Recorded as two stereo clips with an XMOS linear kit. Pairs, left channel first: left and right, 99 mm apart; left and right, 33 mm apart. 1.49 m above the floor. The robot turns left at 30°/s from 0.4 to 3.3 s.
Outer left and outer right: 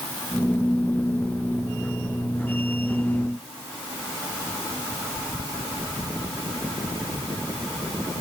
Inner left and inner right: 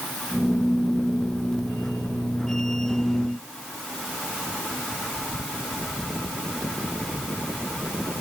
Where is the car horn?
No car horn in this recording.